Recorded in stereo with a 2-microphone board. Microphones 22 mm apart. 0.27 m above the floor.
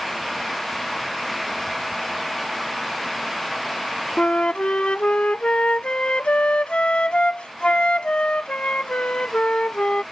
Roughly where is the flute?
Left.